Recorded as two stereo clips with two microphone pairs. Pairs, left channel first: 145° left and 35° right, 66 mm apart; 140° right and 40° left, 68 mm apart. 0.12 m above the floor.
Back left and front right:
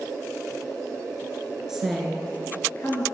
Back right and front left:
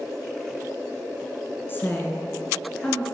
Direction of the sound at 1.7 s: 115° right.